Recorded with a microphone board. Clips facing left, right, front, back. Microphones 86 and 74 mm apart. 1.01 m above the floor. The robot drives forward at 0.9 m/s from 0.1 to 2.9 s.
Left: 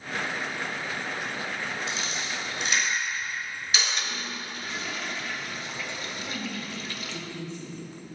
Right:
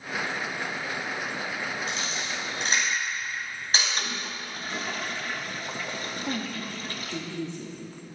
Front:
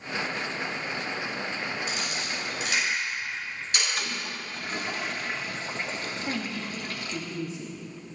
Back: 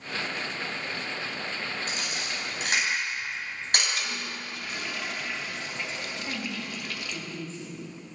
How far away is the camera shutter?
About 5.5 m.